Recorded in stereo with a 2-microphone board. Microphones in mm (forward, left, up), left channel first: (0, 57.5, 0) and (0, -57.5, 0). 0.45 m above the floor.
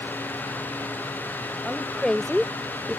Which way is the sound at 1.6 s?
5° left (ahead or behind).